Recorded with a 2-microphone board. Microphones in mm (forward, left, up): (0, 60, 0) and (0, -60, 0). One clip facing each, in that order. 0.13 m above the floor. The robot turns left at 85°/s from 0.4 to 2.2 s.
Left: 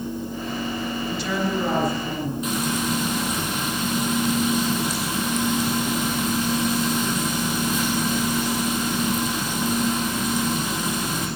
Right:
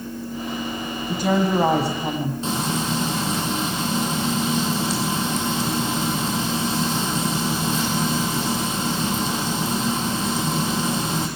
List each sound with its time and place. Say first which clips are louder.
1.1 s a woman speaking: right 7 dB; 35° right, 6 m; by 2.3 s 130° right, 6 m
2.4 s frying: even; 30° right (ahead or behind), 4.5 m